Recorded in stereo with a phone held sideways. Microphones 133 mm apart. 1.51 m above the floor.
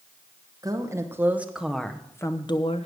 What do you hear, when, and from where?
0.6 s a woman speaking: 25° right (ahead or behind), 1.5 m; by 2.9 s 50° left (ahead or behind), 0.9 m